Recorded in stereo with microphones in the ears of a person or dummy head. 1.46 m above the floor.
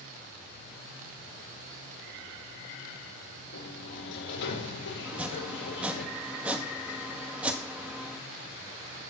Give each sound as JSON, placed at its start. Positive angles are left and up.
{"t": 3.5, "sound": "a sliding door", "side_deg": 65, "distance_m": 6.5}
{"t": 5.0, "sound": "chopping", "side_deg": -5, "distance_m": 1.8}